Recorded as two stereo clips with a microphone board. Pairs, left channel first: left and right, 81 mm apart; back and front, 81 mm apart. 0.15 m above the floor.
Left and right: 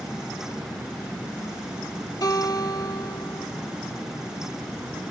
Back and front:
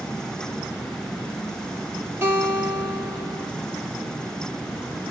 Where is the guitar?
60° left, 3 m.